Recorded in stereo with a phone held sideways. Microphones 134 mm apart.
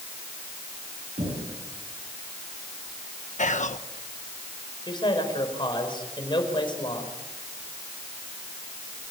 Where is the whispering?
65° left (ahead or behind), 1.2 m.